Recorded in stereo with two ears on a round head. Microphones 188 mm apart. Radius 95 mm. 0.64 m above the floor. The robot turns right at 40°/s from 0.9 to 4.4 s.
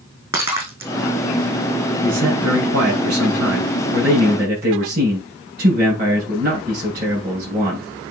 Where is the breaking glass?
15° right (ahead or behind), 3.5 m.